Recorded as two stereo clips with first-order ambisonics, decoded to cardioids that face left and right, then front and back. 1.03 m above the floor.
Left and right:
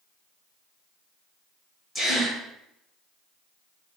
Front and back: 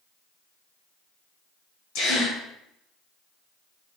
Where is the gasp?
15° left, 1.3 m.